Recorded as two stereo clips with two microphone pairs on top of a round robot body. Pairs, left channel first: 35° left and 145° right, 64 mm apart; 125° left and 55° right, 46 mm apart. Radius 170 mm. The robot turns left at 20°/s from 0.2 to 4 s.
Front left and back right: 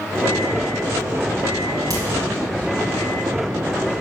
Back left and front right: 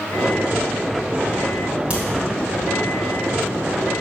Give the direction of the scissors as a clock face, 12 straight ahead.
No scissors in this recording.